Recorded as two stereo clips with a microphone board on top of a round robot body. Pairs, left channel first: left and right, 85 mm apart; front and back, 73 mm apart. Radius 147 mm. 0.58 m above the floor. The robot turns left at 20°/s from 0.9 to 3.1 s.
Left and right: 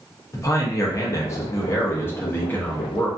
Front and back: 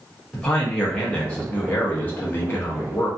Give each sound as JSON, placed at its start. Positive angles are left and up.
{"t": 0.3, "sound": "a man speaking", "azimuth_deg": 70, "distance_m": 0.8}